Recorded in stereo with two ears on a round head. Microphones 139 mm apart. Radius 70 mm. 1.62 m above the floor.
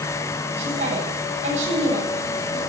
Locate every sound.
0.6 s a woman speaking: 45° right (ahead or behind), 8.5 m